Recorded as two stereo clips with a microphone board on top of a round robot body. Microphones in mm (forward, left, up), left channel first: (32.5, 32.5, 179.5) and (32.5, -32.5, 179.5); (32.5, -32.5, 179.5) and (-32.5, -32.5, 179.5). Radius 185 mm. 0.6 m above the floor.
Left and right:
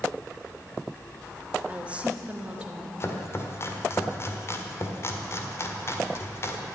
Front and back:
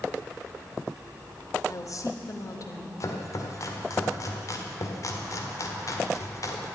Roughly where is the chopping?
Ahead left.